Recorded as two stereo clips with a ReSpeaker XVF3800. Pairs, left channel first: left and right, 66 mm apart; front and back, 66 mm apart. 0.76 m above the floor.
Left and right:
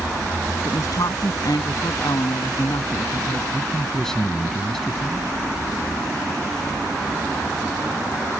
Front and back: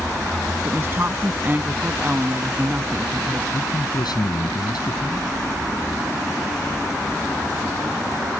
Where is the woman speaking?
125° left; by 3.4 s 110° left.